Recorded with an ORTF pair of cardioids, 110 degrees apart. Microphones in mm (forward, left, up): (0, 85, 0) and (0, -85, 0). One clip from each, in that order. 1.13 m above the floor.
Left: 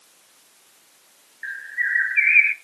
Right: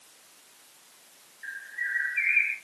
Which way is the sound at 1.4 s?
50° left.